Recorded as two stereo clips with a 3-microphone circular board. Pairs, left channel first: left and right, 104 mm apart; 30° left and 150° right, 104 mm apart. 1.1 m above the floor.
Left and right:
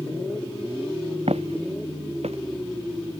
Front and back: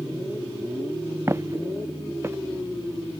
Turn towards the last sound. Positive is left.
turn(degrees=-85)